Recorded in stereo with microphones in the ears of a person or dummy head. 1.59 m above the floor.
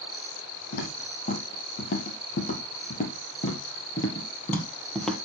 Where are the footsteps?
45° left (ahead or behind), 3 m; by 5.2 s 10° left (ahead or behind), 1.9 m.